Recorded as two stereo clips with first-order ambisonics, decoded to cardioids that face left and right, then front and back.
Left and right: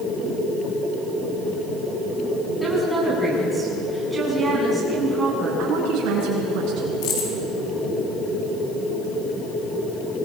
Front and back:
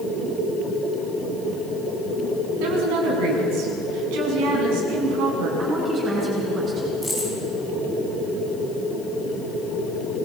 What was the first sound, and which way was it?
A woman speaking, straight behind.